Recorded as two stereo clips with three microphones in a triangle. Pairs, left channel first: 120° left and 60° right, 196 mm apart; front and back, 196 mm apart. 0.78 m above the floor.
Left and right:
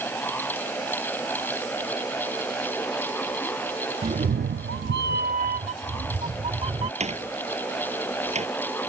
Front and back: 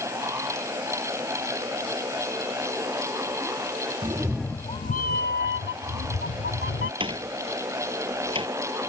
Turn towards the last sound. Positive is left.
turn(degrees=-115)